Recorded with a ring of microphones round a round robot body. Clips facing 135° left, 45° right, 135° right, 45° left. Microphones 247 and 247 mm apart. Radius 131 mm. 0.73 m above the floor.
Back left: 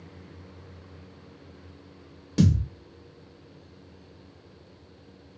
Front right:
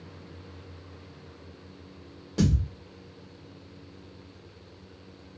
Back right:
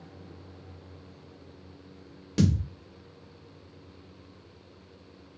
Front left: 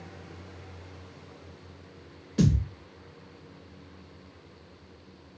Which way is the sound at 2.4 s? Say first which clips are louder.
Back left 3 dB, even; 165° right.